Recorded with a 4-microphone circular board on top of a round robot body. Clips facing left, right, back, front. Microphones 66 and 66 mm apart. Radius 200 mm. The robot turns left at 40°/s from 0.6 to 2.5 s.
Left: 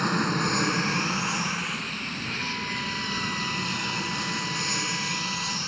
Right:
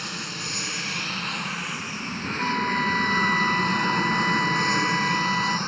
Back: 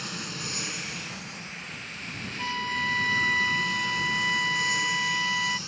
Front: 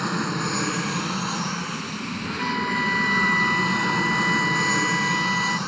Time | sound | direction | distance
0.0 | an aircraft | 40° left | ?
2.4 | a flute | 65° right | ?